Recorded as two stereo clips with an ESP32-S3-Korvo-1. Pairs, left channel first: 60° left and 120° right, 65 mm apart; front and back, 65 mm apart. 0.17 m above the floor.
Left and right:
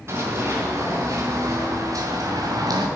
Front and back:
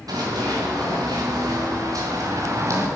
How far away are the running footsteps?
About 3 m.